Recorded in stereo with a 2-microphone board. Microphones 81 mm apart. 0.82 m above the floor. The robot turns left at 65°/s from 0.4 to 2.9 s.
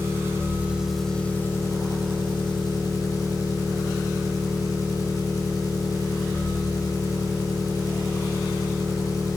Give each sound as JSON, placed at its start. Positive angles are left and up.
{"t": 0.0, "sound": "an engine running", "azimuth_deg": -145, "distance_m": 1.1}